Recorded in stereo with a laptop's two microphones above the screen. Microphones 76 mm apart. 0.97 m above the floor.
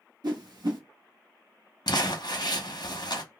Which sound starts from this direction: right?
A whoosh, at 0.2 s.